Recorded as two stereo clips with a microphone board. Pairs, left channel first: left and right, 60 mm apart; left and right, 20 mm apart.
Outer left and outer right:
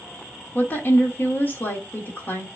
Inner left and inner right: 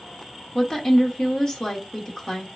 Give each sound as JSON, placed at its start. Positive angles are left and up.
{"t": 0.6, "sound": "a woman speaking", "side_deg": 35, "distance_m": 1.3}